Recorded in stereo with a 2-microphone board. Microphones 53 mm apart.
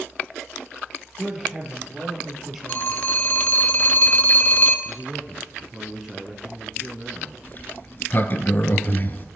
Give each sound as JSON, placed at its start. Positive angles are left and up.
{"t": 1.2, "sound": "a woman speaking", "side_deg": -5, "distance_m": 3.0}
{"t": 2.7, "sound": "a phone ringing", "side_deg": 35, "distance_m": 0.8}
{"t": 4.8, "sound": "a man speaking", "side_deg": -5, "distance_m": 1.4}
{"t": 7.4, "sound": "a sliding door", "side_deg": 40, "distance_m": 0.7}